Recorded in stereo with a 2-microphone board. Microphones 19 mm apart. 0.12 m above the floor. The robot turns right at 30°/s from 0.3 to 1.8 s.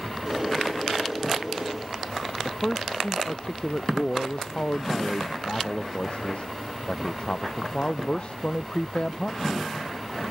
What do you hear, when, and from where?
2.5 s a man speaking: 50° left (ahead or behind)